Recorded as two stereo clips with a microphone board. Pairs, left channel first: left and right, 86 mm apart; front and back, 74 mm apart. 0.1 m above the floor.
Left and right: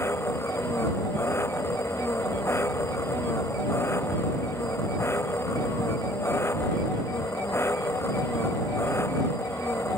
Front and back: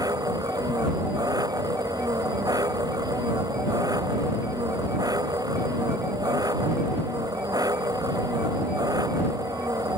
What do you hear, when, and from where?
0.0 s an engine running: 150° left